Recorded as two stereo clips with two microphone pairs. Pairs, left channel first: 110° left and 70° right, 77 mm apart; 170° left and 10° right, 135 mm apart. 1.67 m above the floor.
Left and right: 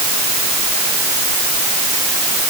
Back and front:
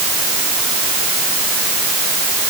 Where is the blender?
No blender in this recording.